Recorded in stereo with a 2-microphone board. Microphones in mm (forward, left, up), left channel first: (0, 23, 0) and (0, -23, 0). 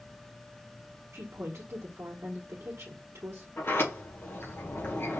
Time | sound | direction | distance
1.1 | a woman speaking | 70° right (ahead or behind) | 1.3 m
3.6 | a sliding door | 60° left (ahead or behind) | 3 m